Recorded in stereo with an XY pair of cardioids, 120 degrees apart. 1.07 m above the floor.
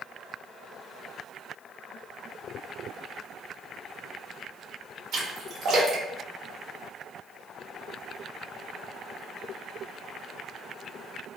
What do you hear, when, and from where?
5.1 s a splash: 60° right, 1.1 m